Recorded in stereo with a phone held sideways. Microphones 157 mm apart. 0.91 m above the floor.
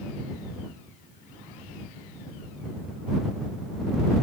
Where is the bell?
I don't hear a bell.